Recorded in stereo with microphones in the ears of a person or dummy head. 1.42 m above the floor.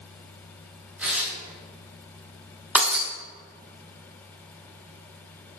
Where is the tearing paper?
5° right (ahead or behind), 2.5 m.